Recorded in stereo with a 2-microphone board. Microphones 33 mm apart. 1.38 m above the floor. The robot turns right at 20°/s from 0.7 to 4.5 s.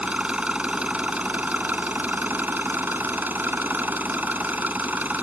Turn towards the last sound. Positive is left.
turn(degrees=-65)